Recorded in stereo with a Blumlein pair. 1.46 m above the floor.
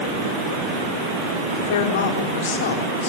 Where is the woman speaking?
55° left, 4.5 m.